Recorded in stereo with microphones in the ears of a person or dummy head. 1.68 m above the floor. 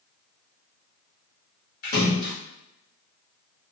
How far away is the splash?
About 1.2 m.